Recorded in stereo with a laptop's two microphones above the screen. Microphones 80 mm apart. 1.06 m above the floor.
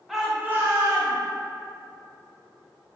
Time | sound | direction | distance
0.1 | a shout | centre (ahead or behind) | 0.8 m